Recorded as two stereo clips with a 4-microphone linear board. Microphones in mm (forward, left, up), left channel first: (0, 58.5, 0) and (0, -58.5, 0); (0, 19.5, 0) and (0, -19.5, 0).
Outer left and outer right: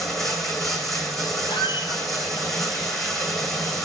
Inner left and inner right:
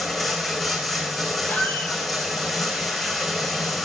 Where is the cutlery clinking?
I don't hear cutlery clinking.